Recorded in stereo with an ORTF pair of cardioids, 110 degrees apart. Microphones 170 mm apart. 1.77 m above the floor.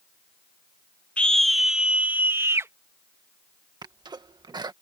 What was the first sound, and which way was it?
A scream, 5° left.